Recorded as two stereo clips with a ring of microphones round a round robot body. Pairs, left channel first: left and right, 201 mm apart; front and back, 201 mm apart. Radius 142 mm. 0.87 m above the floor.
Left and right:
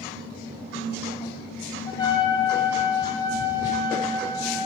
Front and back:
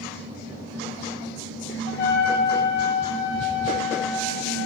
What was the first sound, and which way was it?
A trumpet, 20° left.